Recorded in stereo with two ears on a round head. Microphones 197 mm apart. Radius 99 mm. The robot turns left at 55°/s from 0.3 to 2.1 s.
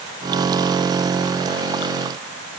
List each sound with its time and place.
Only background noise.